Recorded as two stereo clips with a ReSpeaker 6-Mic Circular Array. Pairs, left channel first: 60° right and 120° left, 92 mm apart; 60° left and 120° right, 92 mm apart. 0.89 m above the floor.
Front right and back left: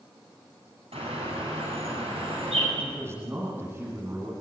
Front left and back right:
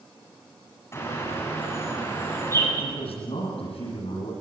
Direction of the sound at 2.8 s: 55° left.